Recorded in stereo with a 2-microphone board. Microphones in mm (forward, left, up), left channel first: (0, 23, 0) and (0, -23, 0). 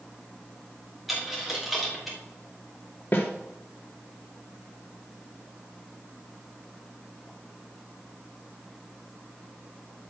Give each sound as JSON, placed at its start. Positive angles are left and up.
{"t": 1.1, "sound": "a dropped coin", "side_deg": 0, "distance_m": 3.5}
{"t": 3.1, "sound": "a snare drum", "side_deg": 45, "distance_m": 2.5}